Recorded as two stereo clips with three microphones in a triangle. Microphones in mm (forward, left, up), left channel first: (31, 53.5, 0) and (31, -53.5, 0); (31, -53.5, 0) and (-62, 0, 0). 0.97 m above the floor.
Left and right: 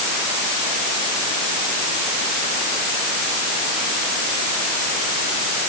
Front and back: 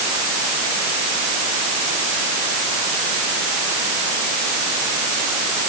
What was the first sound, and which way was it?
Only background noise.